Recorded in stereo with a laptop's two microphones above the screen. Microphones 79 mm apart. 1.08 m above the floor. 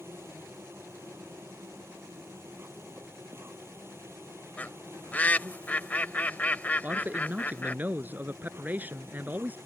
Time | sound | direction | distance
0.0 | an insect | 30° right (ahead or behind) | ?
4.6 | a bird | 20° left (ahead or behind) | ?
6.8 | a man speaking | 20° right (ahead or behind) | ?